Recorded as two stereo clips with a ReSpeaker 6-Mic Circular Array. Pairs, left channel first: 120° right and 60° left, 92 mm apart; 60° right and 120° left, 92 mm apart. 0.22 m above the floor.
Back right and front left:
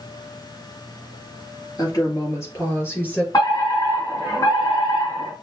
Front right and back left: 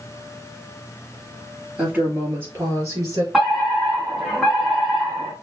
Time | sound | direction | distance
1.8 | a woman speaking | 165° right | 3.5 m
3.3 | a fire alarm | 155° right | 3 m